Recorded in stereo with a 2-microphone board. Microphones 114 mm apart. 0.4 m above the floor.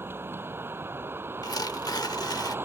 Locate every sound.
0.0 s a vehicle: 20° right (ahead or behind)
1.4 s tearing paper: 35° left (ahead or behind)